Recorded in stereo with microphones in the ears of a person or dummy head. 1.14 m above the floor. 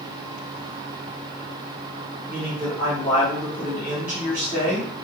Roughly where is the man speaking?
Centre.